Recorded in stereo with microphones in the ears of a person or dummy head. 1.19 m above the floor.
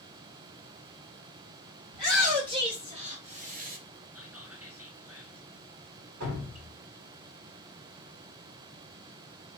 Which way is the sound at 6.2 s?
80° right.